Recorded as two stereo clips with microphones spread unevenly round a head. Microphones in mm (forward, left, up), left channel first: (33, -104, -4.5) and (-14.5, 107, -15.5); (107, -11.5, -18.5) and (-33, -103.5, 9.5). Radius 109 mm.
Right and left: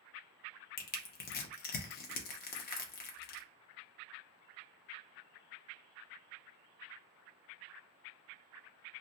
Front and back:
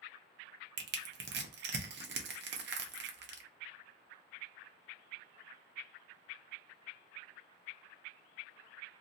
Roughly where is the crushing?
Behind right.